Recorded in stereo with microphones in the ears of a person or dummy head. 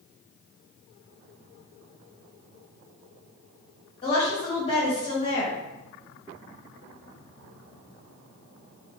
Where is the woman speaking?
30° left (ahead or behind), 1.4 m.